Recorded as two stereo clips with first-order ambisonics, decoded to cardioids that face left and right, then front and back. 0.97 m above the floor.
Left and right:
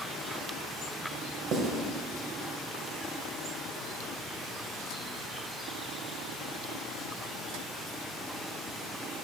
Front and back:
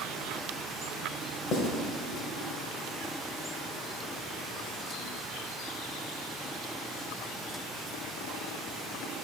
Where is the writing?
45° right, 1.1 m.